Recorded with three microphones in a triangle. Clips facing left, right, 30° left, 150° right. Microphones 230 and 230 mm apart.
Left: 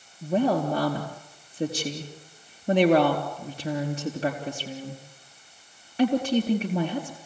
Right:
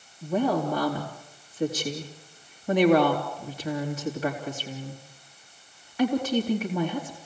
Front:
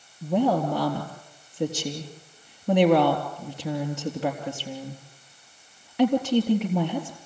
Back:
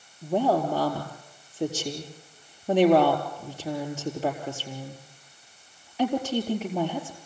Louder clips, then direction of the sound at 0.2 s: Left 1 dB, front 1 dB; 30° left.